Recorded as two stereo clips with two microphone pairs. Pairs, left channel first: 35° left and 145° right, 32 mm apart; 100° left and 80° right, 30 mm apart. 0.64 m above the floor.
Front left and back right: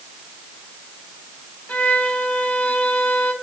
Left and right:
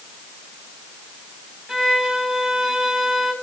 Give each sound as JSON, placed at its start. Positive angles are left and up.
{"t": 1.7, "sound": "a violin", "azimuth_deg": -5, "distance_m": 2.5}